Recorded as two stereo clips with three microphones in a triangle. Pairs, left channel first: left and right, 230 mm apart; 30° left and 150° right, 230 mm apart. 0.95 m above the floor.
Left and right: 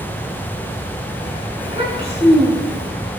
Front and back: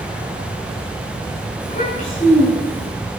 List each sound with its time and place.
1.6 s a child speaking: 25° right, 9 m